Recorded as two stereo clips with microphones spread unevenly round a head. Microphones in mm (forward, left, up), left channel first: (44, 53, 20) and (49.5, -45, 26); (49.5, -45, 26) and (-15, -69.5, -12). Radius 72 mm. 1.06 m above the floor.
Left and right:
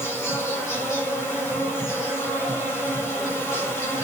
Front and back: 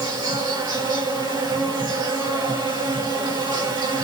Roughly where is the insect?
Behind.